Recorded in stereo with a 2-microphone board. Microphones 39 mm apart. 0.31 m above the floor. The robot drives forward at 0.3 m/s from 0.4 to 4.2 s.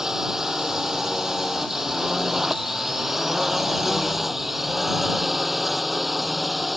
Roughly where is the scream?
I don't hear a scream.